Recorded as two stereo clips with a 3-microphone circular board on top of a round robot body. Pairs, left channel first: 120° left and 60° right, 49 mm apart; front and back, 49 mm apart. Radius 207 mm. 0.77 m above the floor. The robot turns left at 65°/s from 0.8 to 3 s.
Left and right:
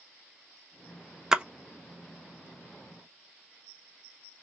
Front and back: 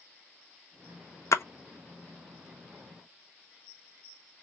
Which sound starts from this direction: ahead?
A splash, at 1.3 s.